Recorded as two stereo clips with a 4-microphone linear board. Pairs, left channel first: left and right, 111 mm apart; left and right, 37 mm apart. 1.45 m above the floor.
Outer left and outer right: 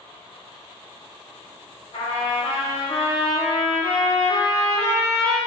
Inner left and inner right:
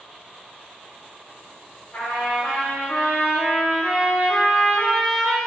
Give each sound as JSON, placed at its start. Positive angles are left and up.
{"t": 1.9, "sound": "a trumpet", "side_deg": 80, "distance_m": 3.0}